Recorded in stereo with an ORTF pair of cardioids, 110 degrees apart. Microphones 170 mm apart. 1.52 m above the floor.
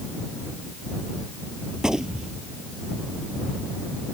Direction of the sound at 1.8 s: 5° right.